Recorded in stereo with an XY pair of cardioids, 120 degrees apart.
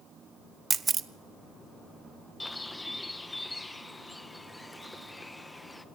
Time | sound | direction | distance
0.7 | a camera shutter | 35° right | 1.2 m
2.4 | a bird | 10° left | 1.5 m